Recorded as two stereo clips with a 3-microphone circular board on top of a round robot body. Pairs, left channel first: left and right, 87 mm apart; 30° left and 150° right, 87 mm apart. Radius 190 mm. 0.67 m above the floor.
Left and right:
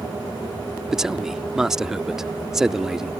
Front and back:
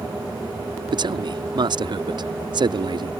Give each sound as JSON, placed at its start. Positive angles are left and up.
{"t": 0.9, "sound": "a man speaking", "azimuth_deg": -175}